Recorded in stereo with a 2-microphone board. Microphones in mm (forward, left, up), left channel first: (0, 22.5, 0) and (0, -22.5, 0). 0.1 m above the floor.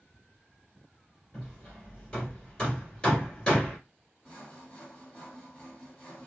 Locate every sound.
1.3 s hammering: 15° left (ahead or behind), 1.8 m
4.2 s sawing: 15° left (ahead or behind), 1.6 m